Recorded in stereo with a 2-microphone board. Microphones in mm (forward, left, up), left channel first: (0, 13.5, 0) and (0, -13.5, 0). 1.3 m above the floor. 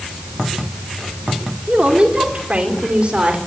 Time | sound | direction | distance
1.7 | a woman speaking | 50° right (ahead or behind) | 4.5 m